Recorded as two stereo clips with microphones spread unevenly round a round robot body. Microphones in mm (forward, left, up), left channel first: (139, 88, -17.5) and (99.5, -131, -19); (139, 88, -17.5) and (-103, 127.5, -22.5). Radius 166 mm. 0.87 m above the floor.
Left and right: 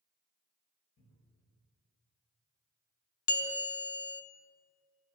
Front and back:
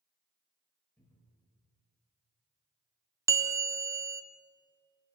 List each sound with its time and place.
1.0 s a cupboard door: 75° left, 5 m
3.3 s a bell: 90° left, 0.5 m